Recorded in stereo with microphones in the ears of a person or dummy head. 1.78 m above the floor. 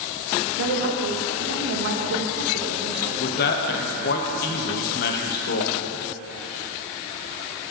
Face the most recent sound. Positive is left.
turn(degrees=55)  # may be behind; listen again after turning